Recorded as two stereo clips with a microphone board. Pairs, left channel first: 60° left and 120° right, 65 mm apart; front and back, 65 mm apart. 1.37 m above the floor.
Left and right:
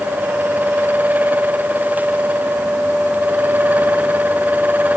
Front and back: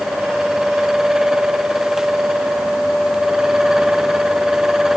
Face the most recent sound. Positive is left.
No sound to turn to.